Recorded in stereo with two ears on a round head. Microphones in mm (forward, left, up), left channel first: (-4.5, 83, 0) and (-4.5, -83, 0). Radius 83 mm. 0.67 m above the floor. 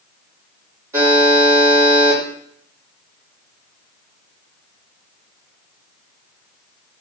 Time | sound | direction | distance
0.9 | a buzzer | 15° right (ahead or behind) | 1.8 m